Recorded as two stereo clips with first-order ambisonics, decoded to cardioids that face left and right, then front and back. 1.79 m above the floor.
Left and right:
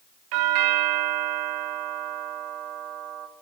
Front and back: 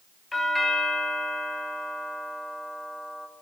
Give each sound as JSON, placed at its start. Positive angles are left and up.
{"t": 0.3, "sound": "a doorbell", "azimuth_deg": -80, "distance_m": 0.8}